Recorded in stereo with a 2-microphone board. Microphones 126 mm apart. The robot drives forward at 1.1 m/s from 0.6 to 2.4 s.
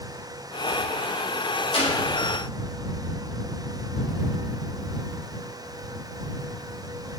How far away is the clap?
About 5 m.